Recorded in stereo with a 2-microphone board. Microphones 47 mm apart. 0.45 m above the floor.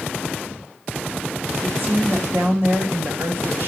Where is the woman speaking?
60° right (ahead or behind), 2.5 m; by 3.7 s 55° right (ahead or behind), 1.9 m.